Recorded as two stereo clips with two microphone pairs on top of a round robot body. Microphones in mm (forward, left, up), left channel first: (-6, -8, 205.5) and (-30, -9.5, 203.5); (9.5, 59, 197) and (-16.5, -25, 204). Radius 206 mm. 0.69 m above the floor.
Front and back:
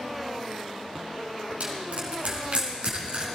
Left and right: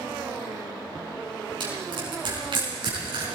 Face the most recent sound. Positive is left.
turn(degrees=-140)